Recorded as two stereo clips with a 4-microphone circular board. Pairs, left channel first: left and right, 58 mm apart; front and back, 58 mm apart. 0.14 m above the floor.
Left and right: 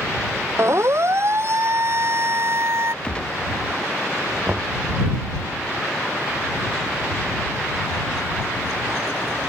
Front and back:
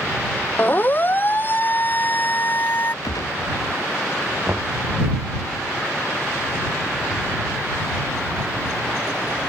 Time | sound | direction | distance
0.6 | a siren | 55° right | ?
3.0 | a gunshot | 15° left | ?
4.5 | knocking | 140° right | ?